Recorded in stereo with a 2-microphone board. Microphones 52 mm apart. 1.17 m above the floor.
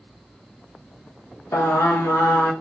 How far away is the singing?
About 0.7 m.